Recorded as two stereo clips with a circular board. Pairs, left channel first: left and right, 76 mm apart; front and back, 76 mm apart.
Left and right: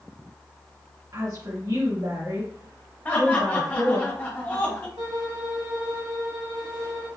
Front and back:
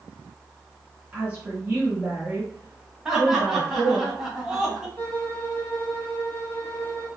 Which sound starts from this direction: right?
A violin, at 5.0 s.